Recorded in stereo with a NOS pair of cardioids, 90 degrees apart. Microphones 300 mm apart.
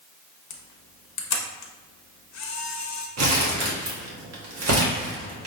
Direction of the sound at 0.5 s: 65° left.